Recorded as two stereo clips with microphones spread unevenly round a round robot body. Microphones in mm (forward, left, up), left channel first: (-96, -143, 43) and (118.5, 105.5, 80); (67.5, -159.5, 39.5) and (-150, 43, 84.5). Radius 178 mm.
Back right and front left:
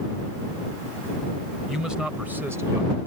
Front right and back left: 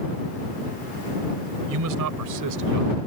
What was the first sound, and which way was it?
A man speaking, 140° left.